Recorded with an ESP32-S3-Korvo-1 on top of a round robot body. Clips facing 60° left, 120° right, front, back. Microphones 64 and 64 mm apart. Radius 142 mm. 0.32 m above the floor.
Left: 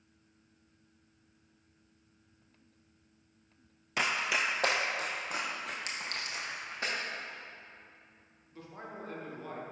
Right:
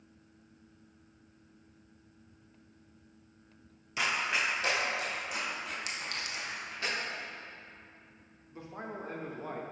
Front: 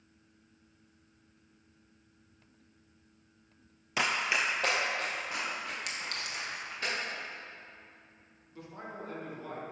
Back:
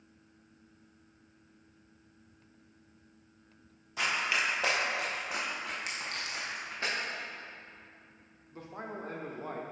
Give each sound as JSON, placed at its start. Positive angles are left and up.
{"t": 4.0, "sound": "running footsteps", "azimuth_deg": 20, "distance_m": 0.6}
{"t": 5.9, "sound": "a clink", "azimuth_deg": 15, "distance_m": 1.4}
{"t": 8.5, "sound": "a man speaking", "azimuth_deg": -170, "distance_m": 1.1}